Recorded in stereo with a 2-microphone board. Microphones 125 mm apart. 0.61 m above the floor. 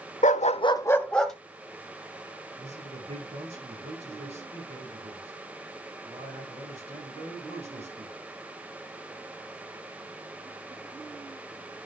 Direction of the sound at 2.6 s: 60° right (ahead or behind).